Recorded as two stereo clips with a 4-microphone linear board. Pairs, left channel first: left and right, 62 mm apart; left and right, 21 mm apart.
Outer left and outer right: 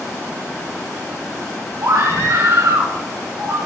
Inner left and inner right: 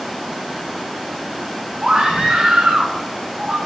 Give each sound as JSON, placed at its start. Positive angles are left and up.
{"t": 1.8, "sound": "a scream", "side_deg": -60, "distance_m": 4.0}